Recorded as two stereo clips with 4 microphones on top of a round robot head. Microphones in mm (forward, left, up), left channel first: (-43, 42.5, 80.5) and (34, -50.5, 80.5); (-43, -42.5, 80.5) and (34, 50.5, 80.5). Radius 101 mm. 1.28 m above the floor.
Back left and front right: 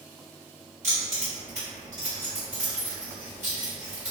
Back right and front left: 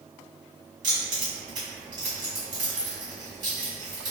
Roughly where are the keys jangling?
Ahead.